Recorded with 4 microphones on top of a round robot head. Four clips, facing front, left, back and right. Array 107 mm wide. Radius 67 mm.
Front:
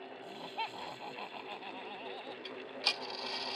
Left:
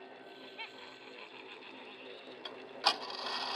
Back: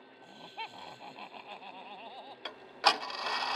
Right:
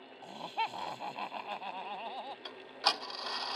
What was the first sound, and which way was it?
Laughter, 80° right.